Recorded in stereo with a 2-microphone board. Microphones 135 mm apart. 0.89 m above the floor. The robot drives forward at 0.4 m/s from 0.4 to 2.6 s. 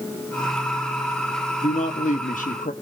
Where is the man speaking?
60° left (ahead or behind), 1.2 m; by 2.7 s 75° left (ahead or behind), 1.1 m.